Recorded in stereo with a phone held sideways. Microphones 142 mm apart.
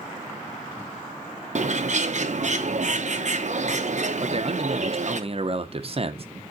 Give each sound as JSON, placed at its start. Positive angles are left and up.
{"t": 1.6, "sound": "a bird", "side_deg": -60, "distance_m": 0.8}
{"t": 4.2, "sound": "a man speaking", "side_deg": -45, "distance_m": 0.9}